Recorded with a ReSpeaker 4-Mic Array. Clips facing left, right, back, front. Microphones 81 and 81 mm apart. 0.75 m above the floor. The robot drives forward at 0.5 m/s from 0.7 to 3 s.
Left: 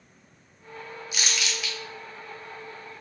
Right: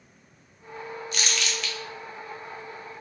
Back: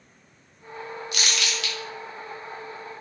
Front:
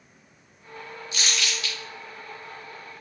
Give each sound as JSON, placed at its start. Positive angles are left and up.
{"t": 1.1, "sound": "crumpling", "azimuth_deg": 175, "distance_m": 0.6}